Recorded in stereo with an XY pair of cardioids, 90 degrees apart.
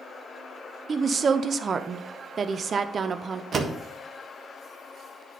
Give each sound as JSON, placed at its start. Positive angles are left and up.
{"t": 0.9, "sound": "a woman speaking", "azimuth_deg": -50, "distance_m": 0.7}
{"t": 3.5, "sound": "a door slam", "azimuth_deg": -55, "distance_m": 1.4}